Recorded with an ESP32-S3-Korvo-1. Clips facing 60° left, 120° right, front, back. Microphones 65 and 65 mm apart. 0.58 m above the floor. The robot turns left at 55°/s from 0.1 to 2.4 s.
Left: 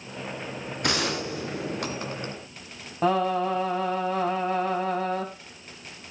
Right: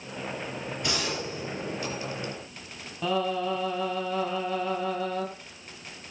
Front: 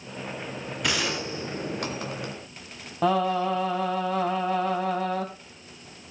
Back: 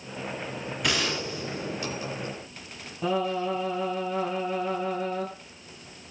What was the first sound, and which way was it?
A gunshot, 90° left.